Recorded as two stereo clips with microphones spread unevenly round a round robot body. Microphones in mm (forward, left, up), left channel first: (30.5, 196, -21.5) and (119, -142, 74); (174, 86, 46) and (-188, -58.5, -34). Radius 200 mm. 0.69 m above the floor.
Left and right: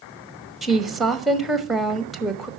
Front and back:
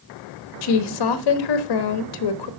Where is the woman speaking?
30° left, 1.3 m.